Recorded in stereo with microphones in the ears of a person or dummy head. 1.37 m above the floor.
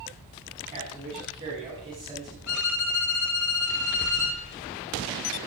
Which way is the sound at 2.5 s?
80° left.